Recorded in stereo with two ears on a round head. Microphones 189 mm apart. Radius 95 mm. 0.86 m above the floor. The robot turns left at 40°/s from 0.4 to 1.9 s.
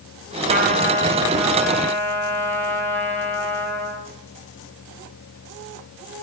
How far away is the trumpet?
About 4 m.